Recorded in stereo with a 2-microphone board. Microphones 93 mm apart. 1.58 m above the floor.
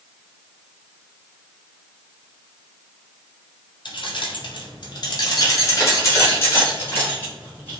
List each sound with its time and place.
3.9 s keys jangling: 55° left (ahead or behind), 0.8 m; by 7.8 s 20° left (ahead or behind), 2 m